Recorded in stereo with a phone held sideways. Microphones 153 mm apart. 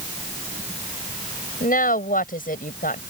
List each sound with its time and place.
1.6 s a woman speaking: 65° left (ahead or behind)